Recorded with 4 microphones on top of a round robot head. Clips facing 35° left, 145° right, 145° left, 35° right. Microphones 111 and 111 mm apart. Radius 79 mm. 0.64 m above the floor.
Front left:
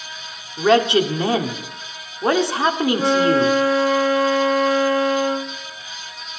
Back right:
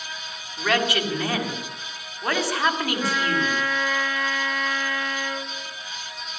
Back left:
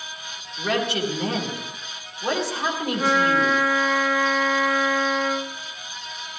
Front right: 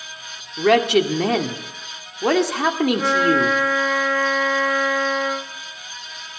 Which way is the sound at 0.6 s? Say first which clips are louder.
Front left 9 dB, front right 9 dB; 30° right.